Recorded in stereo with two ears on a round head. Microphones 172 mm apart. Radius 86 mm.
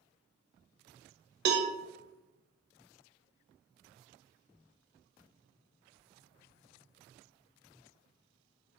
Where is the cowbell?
55° right (ahead or behind), 0.6 m.